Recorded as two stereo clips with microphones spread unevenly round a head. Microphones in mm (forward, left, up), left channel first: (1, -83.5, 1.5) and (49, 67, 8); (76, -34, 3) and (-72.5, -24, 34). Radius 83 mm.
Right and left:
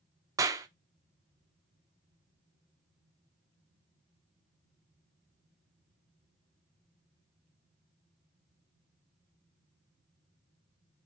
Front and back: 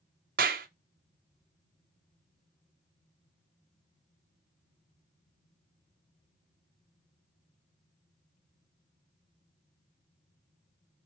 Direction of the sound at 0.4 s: 145° left.